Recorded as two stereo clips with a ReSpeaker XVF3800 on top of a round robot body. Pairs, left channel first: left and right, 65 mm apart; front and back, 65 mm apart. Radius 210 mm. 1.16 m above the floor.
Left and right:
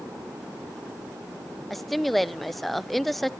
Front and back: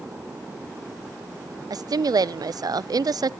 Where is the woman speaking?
175° left, 0.6 m.